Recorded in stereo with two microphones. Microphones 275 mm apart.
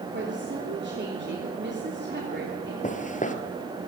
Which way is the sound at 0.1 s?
40° right (ahead or behind).